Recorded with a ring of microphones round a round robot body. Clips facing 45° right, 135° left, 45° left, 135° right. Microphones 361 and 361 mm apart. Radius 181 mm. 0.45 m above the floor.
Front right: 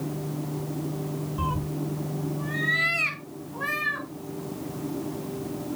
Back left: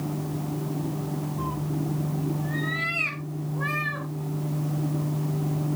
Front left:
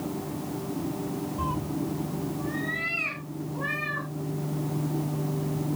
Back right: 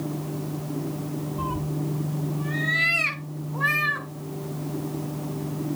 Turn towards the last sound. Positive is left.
turn(degrees=-120)